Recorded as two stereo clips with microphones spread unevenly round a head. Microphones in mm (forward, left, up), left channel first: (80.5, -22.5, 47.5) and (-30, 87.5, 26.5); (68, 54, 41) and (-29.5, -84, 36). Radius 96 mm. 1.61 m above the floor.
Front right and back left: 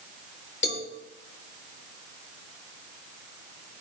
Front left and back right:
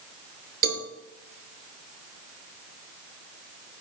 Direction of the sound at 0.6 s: 95° right.